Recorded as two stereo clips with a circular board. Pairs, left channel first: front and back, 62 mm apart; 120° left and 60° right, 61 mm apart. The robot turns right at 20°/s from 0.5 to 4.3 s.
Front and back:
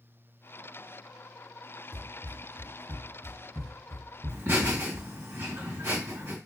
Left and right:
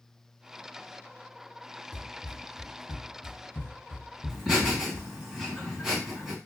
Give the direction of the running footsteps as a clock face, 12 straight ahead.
6 o'clock.